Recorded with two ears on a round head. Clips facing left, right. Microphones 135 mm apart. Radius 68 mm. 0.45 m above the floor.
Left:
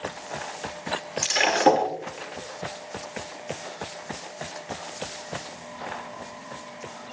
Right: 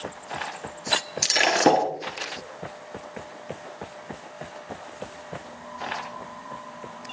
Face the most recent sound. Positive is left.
turn(degrees=-40)  # may be behind; listen again after turning